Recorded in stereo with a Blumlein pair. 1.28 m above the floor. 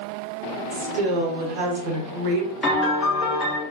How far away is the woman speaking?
About 0.9 m.